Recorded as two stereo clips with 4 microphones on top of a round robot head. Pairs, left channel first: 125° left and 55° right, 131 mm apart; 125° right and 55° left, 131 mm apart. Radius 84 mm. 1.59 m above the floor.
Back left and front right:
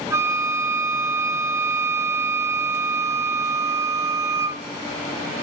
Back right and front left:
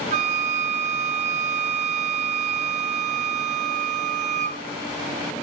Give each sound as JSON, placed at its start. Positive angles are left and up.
{"t": 0.1, "sound": "a flute", "azimuth_deg": 15, "distance_m": 0.7}